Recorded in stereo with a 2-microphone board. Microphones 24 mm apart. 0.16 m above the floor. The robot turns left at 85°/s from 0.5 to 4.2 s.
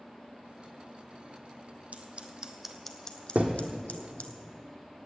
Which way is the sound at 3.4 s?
75° right (ahead or behind).